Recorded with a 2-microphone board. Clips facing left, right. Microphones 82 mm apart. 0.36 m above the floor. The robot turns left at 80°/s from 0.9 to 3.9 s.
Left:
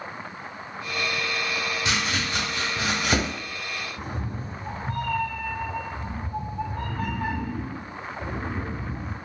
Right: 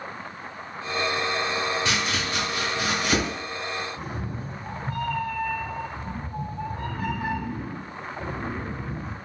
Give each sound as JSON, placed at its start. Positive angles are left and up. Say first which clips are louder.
{"t": 1.9, "sound": "chopping", "louder": "right 1 dB", "side_deg": 15, "distance_m": 1.3}
{"t": 4.0, "sound": "a cat meowing", "louder": "even", "side_deg": -10, "distance_m": 1.7}